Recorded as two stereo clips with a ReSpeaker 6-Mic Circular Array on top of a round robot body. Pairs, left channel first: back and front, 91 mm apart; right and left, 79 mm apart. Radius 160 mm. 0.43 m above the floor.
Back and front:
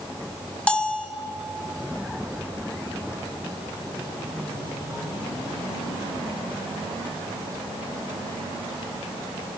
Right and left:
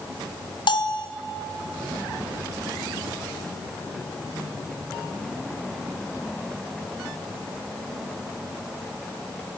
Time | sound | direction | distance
0.7 | a bell | 100° right | 0.6 m